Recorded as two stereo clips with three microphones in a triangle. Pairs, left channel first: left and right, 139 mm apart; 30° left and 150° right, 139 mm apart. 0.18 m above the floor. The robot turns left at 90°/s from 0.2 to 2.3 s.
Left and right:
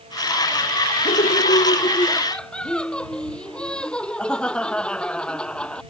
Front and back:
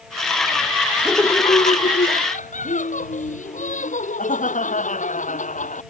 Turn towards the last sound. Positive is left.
turn(degrees=5)